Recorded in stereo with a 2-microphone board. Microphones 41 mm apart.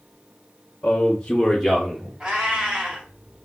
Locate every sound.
0.8 s a man speaking: 35° left (ahead or behind), 0.8 m; by 2.1 s 15° right (ahead or behind), 0.8 m
2.2 s a cat meowing: 25° right (ahead or behind), 0.9 m